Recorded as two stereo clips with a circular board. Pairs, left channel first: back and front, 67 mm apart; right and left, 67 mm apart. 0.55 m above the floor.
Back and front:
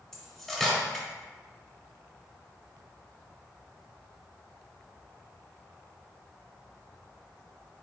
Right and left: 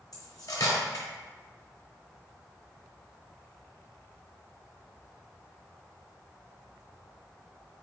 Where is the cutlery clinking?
100° right, 0.9 m.